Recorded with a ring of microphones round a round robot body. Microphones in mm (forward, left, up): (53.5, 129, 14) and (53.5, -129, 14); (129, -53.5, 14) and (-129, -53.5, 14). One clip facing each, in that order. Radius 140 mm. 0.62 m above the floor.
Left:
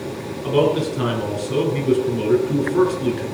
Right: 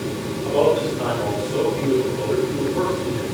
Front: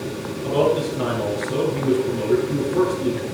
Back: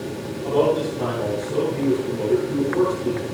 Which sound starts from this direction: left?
A man speaking, at 0.4 s.